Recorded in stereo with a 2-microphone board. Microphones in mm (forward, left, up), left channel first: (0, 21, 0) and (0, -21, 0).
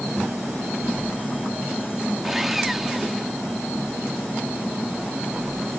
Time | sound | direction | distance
2.2 | sawing | 5° right (ahead or behind) | ?